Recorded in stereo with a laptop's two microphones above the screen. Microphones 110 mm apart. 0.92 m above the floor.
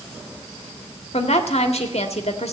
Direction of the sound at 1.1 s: 70° left (ahead or behind).